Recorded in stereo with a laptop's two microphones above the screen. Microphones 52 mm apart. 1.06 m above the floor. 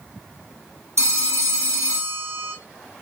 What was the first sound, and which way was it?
A phone ringing, 65° right (ahead or behind).